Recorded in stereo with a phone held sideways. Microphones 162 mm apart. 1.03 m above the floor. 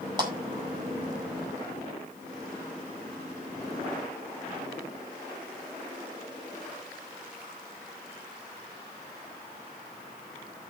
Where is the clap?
25° right (ahead or behind), 5.5 m.